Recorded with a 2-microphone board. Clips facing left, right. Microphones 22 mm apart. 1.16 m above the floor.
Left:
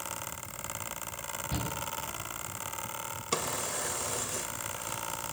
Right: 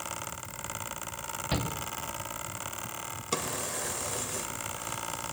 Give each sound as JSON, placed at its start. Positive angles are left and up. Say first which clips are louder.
{"t": 1.5, "sound": "a shout", "louder": "right 5 dB", "side_deg": -65, "distance_m": 1.9}
{"t": 3.3, "sound": "a drawer", "louder": "even", "side_deg": 5, "distance_m": 1.1}